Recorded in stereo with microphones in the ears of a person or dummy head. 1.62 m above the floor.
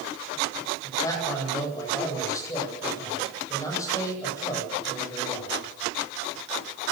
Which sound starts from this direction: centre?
A man speaking, at 0.8 s.